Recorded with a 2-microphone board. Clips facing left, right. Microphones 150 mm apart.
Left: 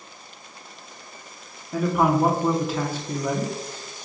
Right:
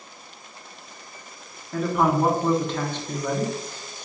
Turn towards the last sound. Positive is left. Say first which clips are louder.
# left 1 dB
turn(degrees=5)  # may be behind; listen again after turning